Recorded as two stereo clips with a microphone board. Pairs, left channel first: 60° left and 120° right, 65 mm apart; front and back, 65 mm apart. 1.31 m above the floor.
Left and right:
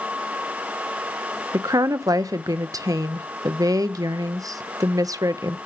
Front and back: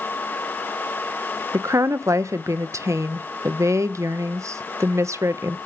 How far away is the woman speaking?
About 0.6 m.